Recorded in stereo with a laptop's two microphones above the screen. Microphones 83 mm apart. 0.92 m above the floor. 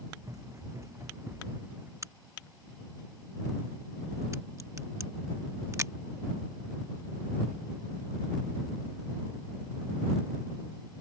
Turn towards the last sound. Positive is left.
turn(degrees=-40)  # may be behind; listen again after turning